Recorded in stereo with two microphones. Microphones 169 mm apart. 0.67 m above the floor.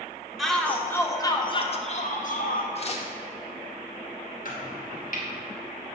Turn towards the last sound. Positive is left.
turn(degrees=55)  # may be behind; listen again after turning